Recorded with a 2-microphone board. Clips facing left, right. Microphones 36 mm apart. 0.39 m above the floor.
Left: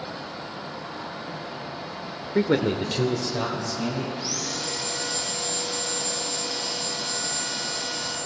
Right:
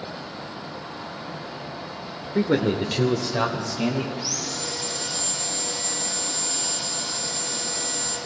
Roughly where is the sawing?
Left.